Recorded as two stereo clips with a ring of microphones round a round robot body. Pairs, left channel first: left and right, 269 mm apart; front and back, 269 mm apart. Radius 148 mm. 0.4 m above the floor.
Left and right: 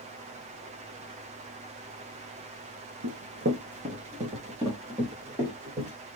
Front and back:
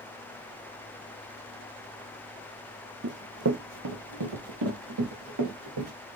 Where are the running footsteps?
130° right, 0.9 m; by 5.9 s 175° right, 3.5 m.